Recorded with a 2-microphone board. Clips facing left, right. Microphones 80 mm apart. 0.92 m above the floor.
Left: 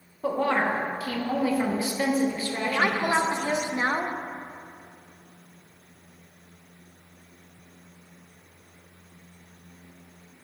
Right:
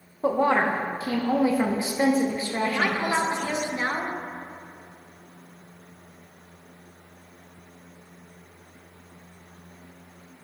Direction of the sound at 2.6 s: 20° left (ahead or behind).